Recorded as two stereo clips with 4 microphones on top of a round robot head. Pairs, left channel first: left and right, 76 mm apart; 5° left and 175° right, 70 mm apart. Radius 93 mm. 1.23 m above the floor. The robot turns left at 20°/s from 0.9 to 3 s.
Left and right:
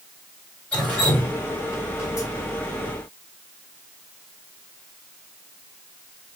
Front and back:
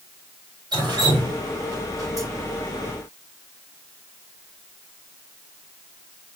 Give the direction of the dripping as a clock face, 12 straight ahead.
6 o'clock.